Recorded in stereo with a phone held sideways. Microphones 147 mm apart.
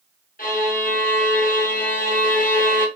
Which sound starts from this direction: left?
A violin, at 0.4 s.